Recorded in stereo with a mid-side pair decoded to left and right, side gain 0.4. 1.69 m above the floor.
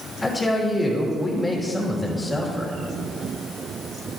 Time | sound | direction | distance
0.2 | a woman speaking | 25° left | 3 m